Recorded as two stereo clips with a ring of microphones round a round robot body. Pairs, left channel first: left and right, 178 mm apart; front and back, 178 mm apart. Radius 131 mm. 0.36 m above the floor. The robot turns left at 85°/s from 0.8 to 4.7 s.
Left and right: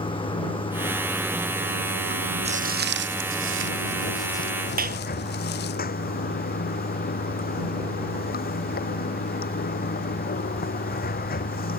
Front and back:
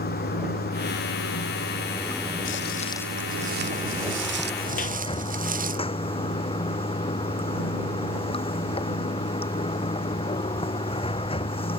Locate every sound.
0.0 s running water: 30° left; by 11.8 s 60° left
2.5 s footsteps: 35° right; by 5.8 s 140° left
4.8 s a clap: 55° right